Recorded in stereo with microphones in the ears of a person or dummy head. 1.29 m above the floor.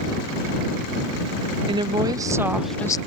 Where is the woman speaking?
35° right (ahead or behind); by 3.0 s 20° left (ahead or behind).